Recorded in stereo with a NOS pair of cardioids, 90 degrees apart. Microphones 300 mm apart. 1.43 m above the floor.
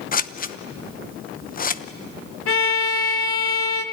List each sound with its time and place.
0.1 s scissors: 30° left, 0.9 m
2.5 s a violin: 50° left, 2.5 m